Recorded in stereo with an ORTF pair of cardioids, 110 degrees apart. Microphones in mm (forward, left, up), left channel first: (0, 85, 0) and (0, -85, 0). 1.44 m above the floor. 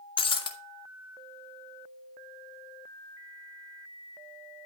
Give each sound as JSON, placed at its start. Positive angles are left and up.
{"t": 0.2, "sound": "breaking glass", "azimuth_deg": 30, "distance_m": 2.5}